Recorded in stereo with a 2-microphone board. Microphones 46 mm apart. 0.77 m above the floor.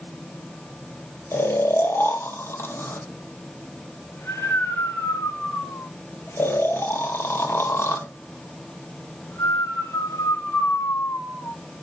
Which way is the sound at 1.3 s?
65° left (ahead or behind).